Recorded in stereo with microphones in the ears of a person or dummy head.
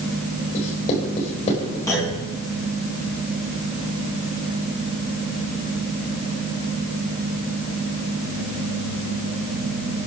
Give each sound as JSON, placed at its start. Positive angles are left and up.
{"t": 0.5, "sound": "writing", "side_deg": 35, "distance_m": 4.5}
{"t": 1.9, "sound": "a clunk", "side_deg": 15, "distance_m": 7.5}